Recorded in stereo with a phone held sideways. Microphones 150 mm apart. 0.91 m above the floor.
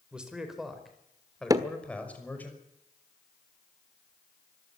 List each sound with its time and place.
0.1 s a man speaking: 5° right (ahead or behind), 4.5 m; by 2.5 s 10° left (ahead or behind), 5.5 m
1.5 s hammering: 25° right (ahead or behind), 1.4 m